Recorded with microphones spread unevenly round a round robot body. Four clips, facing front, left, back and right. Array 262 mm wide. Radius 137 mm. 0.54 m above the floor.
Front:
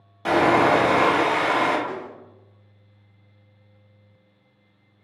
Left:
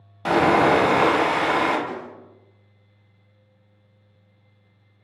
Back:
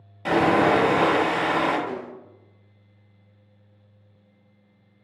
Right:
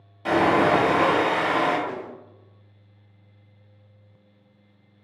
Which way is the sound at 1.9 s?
145° right.